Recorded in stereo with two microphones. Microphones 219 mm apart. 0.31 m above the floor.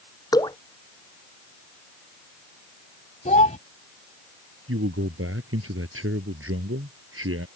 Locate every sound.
0.3 s dripping: 15° left (ahead or behind)
3.2 s a child speaking: 35° left (ahead or behind)
4.7 s a man speaking: 80° right